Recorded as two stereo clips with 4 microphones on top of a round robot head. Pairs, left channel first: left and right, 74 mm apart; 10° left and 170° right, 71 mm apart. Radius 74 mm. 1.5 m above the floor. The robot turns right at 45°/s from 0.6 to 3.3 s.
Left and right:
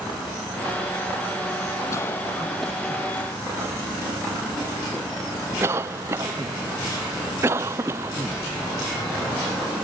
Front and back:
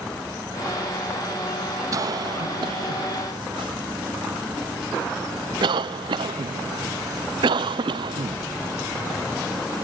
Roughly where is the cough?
Behind left.